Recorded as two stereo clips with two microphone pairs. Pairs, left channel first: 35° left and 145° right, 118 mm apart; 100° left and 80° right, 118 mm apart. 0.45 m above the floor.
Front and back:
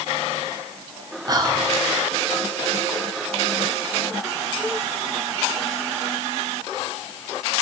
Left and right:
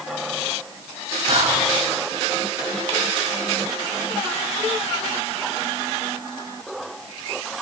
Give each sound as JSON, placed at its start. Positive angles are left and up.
{"t": 1.3, "sound": "whispering", "azimuth_deg": -95, "distance_m": 1.8}